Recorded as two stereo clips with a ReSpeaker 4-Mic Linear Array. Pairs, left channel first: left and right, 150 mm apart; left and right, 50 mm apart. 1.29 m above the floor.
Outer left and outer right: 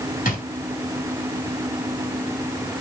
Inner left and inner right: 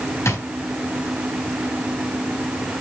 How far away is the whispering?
I don't hear whispering.